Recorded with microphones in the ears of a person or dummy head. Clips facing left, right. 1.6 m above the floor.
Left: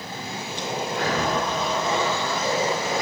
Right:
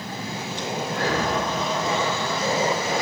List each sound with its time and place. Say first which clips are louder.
0.9 s breathing: even; 20° left (ahead or behind), 2.0 m